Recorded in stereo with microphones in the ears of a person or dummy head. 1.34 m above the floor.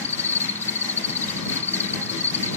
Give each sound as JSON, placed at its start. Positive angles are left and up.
{"t": 0.0, "sound": "an insect", "side_deg": 10}